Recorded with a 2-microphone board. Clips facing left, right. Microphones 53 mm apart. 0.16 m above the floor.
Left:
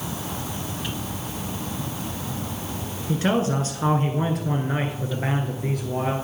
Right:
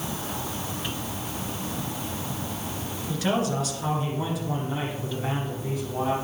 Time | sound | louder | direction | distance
3.1 | a man speaking | left 3 dB | 25° left (ahead or behind) | 2 m